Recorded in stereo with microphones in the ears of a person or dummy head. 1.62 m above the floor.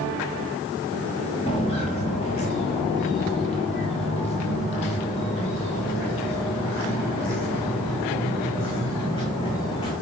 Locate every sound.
1.5 s footsteps: 25° left (ahead or behind), 1.8 m